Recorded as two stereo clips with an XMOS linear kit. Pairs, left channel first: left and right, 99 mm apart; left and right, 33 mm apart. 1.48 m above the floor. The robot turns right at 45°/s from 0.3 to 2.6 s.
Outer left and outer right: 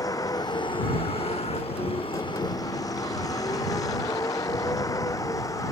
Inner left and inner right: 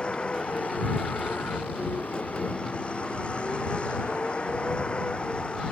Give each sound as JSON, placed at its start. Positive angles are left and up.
{"t": 0.0, "sound": "a vehicle", "side_deg": 35}